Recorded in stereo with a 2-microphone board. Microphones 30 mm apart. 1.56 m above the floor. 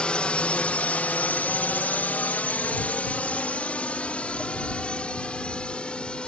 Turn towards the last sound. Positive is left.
turn(degrees=35)  # may be behind; listen again after turning